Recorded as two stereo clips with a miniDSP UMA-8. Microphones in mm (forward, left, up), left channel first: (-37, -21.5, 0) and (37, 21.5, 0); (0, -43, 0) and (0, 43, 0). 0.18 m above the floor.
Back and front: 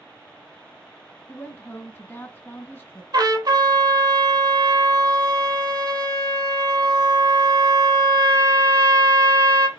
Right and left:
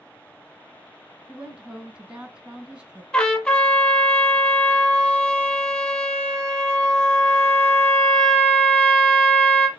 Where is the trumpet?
10° right, 1.1 m.